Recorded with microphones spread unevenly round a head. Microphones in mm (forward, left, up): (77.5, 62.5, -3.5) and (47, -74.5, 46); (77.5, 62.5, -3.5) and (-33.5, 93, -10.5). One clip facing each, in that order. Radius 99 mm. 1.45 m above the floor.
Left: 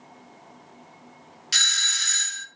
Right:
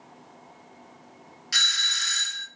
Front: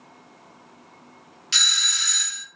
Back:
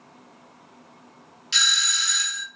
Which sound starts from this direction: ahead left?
A doorbell, at 1.5 s.